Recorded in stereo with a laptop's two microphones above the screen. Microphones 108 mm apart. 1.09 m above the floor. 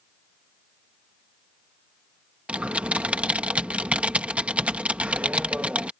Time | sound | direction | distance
2.5 | typing on a keyboard | 10° right (ahead or behind) | ?